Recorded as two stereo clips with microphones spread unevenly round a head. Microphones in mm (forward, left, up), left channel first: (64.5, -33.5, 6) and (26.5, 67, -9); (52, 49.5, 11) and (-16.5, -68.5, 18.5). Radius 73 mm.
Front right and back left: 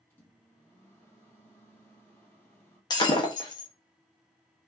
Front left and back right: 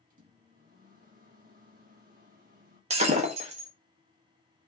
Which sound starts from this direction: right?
Breaking glass, at 2.9 s.